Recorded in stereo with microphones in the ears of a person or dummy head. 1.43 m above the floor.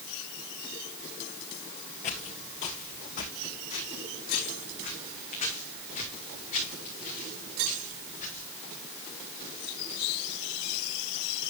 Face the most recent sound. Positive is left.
turn(degrees=40)  # may be behind; listen again after turning